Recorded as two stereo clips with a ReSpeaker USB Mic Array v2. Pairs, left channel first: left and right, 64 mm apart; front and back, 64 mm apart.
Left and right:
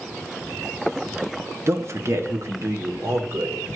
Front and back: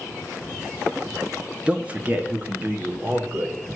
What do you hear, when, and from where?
1.7 s a man speaking: 115° right, 0.7 m; by 3.6 s 125° right, 2 m